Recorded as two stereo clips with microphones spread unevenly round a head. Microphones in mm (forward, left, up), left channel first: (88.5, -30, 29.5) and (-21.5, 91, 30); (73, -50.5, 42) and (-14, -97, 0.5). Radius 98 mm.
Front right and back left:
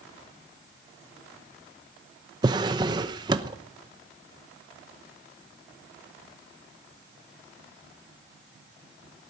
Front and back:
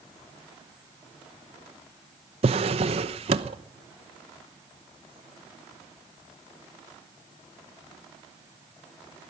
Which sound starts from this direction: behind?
A drawer, at 2.4 s.